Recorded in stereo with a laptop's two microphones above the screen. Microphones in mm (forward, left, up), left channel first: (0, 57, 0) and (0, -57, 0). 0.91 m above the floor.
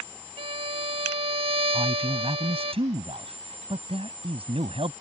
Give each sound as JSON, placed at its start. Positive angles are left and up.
{"t": 0.4, "sound": "a violin", "side_deg": -55}
{"t": 1.7, "sound": "a man speaking", "side_deg": -55}